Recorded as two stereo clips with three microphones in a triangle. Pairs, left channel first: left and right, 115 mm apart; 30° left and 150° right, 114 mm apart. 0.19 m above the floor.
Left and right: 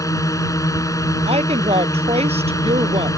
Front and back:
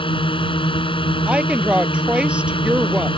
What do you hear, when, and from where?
0.0 s a drone: 40° left
1.3 s a woman speaking: 70° right